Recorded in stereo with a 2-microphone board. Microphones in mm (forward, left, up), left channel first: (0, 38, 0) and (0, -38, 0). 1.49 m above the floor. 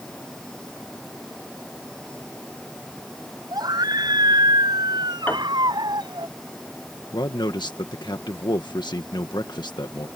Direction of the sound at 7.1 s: 75° left (ahead or behind).